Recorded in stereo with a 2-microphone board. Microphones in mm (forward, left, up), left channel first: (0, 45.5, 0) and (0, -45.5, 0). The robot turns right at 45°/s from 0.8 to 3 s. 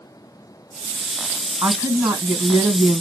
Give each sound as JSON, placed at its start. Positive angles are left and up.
{"t": 1.6, "sound": "a woman speaking", "azimuth_deg": -115, "distance_m": 1.5}